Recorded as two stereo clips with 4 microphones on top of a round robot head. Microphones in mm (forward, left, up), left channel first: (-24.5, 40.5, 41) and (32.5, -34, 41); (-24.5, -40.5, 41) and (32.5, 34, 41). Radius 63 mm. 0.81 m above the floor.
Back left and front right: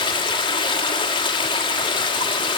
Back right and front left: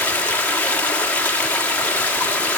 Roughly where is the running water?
Behind left.